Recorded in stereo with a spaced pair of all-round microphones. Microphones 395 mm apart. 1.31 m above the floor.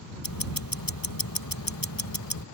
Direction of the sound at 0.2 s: 55° left (ahead or behind).